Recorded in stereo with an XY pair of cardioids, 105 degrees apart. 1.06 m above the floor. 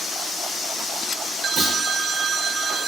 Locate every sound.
1.6 s a clunk: 50° right, 0.7 m